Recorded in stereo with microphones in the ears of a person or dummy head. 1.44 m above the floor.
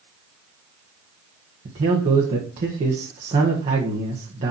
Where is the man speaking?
35° right (ahead or behind), 1.7 m.